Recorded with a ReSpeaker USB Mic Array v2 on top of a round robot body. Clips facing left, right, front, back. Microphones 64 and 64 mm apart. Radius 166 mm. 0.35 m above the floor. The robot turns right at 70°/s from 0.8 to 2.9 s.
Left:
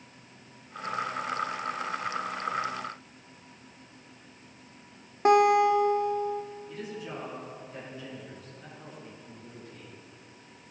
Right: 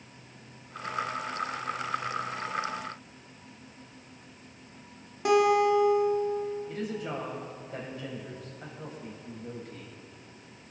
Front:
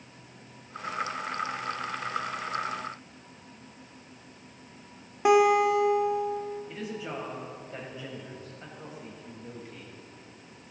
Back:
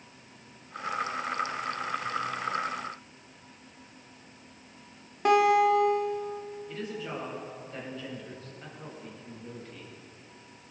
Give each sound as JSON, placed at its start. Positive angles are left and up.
{"t": 5.2, "sound": "a guitar", "azimuth_deg": 75, "distance_m": 1.4}
{"t": 6.7, "sound": "a woman speaking", "azimuth_deg": -70, "distance_m": 3.5}